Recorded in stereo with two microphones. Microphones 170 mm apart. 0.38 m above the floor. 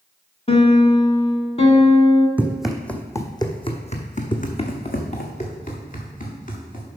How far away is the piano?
About 1.1 m.